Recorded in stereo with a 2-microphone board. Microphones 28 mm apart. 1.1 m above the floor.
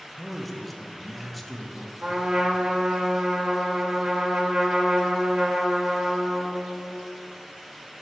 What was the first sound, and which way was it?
A man speaking, 5° left (ahead or behind).